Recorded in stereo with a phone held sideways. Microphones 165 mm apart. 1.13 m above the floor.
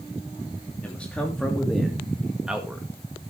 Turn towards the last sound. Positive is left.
turn(degrees=-10)  # may be behind; listen again after turning